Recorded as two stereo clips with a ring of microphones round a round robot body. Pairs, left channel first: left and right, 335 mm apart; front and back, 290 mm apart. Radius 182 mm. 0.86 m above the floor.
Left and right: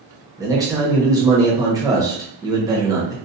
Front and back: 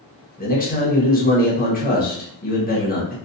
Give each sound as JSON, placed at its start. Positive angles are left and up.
{"t": 0.4, "sound": "a man speaking", "azimuth_deg": -20, "distance_m": 1.0}